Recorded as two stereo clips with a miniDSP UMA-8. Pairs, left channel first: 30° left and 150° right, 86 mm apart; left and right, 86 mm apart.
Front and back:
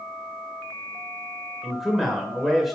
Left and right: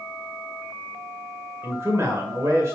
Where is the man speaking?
65° right, 1.8 m.